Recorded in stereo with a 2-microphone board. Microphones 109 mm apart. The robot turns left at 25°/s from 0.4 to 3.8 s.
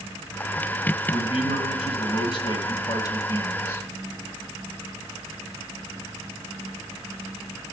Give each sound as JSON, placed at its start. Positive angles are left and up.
{"t": 1.1, "sound": "a man speaking", "azimuth_deg": 95, "distance_m": 1.8}